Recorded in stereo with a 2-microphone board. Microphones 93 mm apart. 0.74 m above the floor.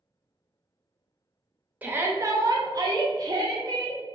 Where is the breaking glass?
No breaking glass in this recording.